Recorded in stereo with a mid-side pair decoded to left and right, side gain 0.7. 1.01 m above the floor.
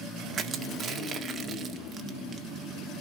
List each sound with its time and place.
0.3 s crushing: 35° right, 1.9 m